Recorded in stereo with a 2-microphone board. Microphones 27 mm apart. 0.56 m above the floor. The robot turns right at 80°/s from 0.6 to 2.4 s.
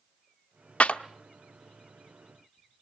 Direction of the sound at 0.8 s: 50° left (ahead or behind).